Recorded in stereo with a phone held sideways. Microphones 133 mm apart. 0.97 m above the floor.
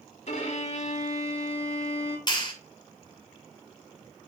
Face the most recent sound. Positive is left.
turn(degrees=35)  # may be behind; listen again after turning